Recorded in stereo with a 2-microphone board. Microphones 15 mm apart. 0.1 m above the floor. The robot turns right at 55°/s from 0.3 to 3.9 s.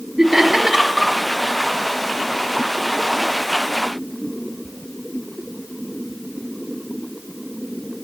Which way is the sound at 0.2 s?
35° right (ahead or behind).